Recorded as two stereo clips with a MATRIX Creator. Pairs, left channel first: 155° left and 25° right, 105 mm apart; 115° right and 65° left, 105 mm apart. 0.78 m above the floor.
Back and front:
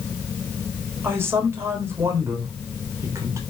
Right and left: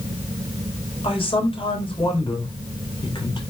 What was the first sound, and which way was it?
A man speaking, 90° right.